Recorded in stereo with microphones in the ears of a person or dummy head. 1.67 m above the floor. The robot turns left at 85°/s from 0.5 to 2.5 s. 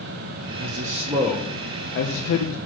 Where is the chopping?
I don't hear chopping.